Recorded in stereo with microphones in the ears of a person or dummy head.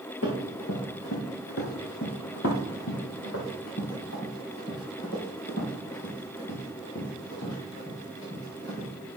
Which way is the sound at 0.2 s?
70° left (ahead or behind).